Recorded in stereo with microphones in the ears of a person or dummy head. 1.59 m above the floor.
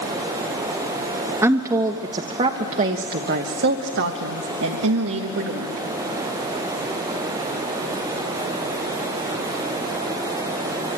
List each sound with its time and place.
1.4 s a woman speaking: 15° right (ahead or behind), 1.5 m; by 5.8 s 70° right (ahead or behind), 2 m